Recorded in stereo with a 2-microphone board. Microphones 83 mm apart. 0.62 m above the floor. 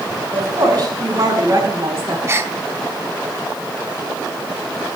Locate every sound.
0.3 s a woman speaking: 45° right (ahead or behind), 5.5 m; by 2.2 s 25° right (ahead or behind), 5 m
2.3 s a gasp: 30° right (ahead or behind), 0.9 m